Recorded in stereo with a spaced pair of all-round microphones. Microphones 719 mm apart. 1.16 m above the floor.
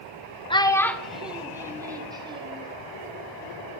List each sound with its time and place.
0.5 s a child speaking: 10° left (ahead or behind), 0.6 m; by 2.7 s 10° right (ahead or behind), 1.7 m